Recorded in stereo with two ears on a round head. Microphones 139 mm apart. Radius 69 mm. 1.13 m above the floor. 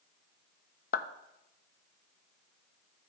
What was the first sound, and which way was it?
A clap, 60° left (ahead or behind).